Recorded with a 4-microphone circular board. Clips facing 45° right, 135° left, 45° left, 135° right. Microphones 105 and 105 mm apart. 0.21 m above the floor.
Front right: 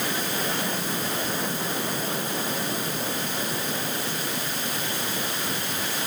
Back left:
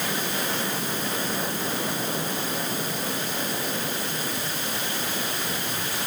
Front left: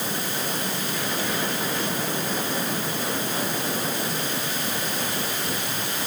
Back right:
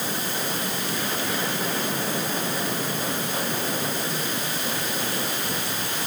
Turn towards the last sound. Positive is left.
No sound to turn to.